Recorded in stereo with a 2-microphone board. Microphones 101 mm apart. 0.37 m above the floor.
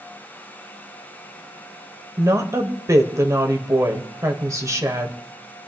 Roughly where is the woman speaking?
Right.